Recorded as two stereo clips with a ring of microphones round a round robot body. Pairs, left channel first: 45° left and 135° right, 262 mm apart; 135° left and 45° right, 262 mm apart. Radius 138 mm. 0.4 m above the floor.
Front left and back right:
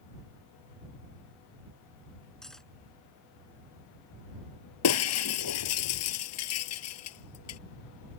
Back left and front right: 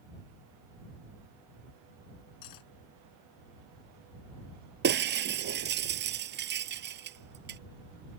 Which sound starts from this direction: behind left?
Cutlery clinking, at 2.4 s.